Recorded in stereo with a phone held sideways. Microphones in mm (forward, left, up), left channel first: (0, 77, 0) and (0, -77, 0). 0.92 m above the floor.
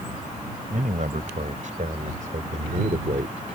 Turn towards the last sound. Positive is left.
turn(degrees=-60)  # may be behind; listen again after turning